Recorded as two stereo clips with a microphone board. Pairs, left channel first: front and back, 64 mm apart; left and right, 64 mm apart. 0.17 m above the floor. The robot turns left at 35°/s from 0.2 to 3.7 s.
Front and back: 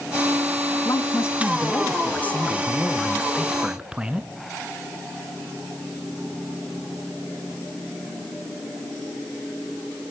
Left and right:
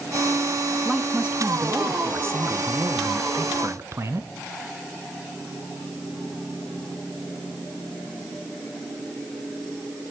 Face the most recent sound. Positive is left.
turn(degrees=-110)